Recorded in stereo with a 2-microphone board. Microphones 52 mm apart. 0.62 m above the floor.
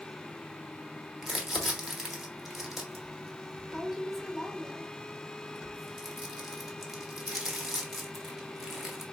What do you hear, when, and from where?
1.2 s crumpling: 5° right (ahead or behind), 1.1 m